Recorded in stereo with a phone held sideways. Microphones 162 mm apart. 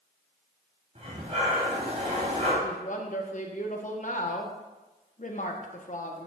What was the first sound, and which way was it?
Breathing, 45° right (ahead or behind).